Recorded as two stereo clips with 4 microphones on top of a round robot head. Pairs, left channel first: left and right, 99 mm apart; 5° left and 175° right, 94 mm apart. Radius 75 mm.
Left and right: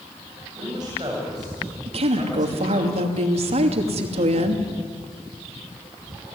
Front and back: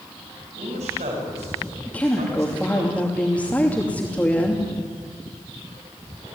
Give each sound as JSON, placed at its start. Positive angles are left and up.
{"t": 0.6, "sound": "a man speaking", "azimuth_deg": -150, "distance_m": 8.0}
{"t": 1.9, "sound": "a woman speaking", "azimuth_deg": -70, "distance_m": 2.5}